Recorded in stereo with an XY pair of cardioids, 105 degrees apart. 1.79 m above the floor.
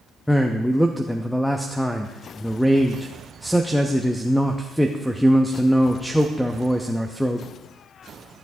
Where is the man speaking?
5° left, 0.7 m.